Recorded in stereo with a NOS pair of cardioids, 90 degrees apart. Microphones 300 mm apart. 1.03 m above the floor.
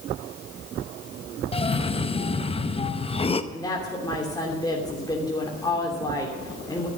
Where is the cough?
20° left, 0.7 m.